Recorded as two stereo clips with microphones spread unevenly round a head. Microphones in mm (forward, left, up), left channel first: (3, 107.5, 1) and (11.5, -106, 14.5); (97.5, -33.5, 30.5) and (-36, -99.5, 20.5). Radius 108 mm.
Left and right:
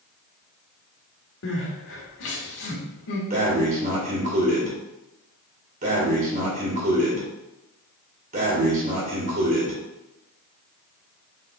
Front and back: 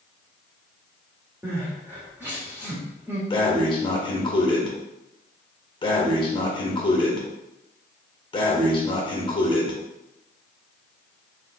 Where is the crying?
125° left, 1.3 m.